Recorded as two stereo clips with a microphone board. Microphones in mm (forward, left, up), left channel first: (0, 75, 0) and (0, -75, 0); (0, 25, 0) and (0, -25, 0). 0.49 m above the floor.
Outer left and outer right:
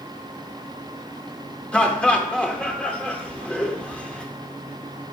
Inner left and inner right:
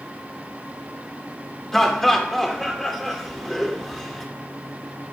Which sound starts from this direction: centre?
Laughter, at 1.7 s.